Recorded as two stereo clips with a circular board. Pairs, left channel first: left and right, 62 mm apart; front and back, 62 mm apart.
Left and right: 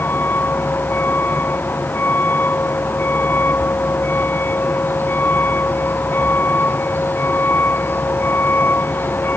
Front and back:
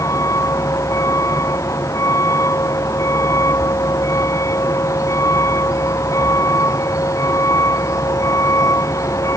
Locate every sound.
0.0 s a vehicle: 35° left